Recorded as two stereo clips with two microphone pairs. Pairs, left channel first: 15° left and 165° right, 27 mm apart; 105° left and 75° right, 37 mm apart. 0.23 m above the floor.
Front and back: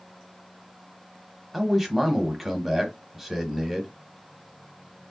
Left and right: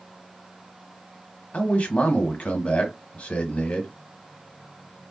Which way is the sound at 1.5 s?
100° left.